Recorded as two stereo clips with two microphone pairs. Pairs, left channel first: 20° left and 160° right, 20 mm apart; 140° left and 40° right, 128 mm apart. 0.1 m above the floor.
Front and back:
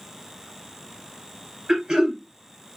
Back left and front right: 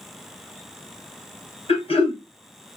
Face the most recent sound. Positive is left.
turn(degrees=155)